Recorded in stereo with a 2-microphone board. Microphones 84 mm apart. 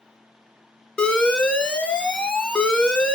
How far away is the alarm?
About 0.8 m.